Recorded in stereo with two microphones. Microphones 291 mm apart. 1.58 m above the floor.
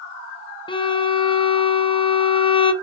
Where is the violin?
15° left (ahead or behind), 0.6 m.